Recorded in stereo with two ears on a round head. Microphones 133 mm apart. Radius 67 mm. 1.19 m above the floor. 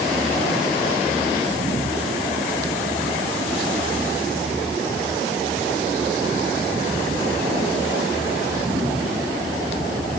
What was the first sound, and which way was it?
Only background noise.